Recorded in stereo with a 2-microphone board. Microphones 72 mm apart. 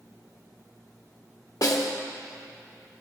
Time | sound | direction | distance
1.6 | a snare drum | 60° left (ahead or behind) | 1.0 m